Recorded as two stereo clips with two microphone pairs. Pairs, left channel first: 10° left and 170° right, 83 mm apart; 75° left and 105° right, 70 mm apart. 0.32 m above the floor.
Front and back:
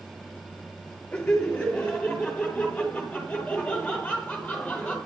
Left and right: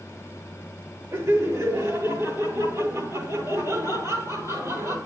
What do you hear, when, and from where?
1.1 s laughter: 65° right, 8.5 m